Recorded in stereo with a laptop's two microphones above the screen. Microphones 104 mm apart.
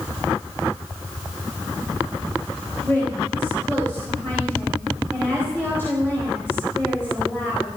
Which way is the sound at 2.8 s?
20° left (ahead or behind).